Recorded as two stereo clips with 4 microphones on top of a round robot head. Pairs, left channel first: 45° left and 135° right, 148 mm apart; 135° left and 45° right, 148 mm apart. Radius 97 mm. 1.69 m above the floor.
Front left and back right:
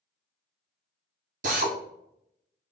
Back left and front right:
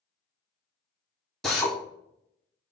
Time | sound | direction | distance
1.4 | a drill | 140° right | 0.7 m